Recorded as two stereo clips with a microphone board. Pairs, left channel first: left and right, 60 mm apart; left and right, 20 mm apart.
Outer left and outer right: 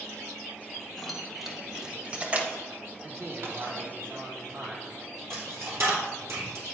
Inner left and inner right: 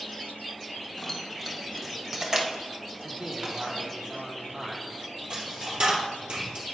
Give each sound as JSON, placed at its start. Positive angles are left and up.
{"t": 1.0, "sound": "keys jangling", "side_deg": 5, "distance_m": 1.5}
{"t": 3.0, "sound": "a man speaking", "side_deg": -45, "distance_m": 2.0}
{"t": 5.3, "sound": "a dropped coin", "side_deg": -55, "distance_m": 3.0}